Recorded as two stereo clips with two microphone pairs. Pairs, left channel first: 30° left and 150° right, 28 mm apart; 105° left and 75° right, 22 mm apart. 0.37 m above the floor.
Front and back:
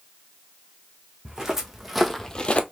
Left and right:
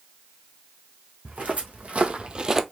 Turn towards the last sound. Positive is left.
turn(degrees=0)